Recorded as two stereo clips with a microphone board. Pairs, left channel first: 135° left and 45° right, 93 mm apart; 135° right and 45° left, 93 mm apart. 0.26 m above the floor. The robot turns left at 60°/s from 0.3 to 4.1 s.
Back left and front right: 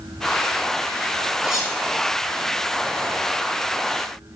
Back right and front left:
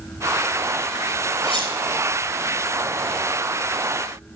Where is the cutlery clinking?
125° right, 3.5 m; by 1.7 s 145° right, 3.5 m.